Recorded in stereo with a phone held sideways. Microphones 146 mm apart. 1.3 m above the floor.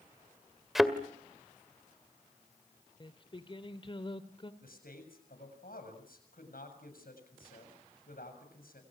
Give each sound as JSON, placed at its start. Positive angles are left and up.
{"t": 0.8, "sound": "a thud", "side_deg": 0, "distance_m": 1.9}
{"t": 3.0, "sound": "singing", "side_deg": 35, "distance_m": 1.8}
{"t": 4.6, "sound": "a man speaking", "side_deg": 90, "distance_m": 7.0}